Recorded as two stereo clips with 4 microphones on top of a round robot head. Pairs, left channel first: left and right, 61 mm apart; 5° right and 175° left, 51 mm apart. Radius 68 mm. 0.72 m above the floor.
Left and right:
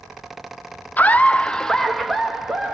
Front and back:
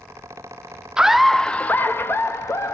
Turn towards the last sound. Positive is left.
turn(degrees=-10)